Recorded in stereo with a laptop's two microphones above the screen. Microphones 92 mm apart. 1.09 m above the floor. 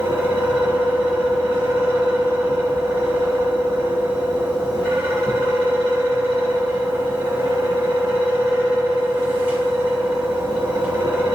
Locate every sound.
0.0 s a fan: 60° right (ahead or behind), 1.2 m